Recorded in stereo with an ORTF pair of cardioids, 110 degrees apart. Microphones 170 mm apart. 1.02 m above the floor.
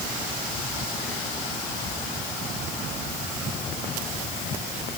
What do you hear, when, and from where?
Only background noise.